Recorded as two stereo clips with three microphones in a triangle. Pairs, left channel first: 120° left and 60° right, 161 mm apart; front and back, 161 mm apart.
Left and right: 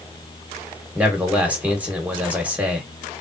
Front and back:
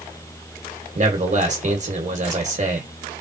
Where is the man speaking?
140° right, 1.5 m.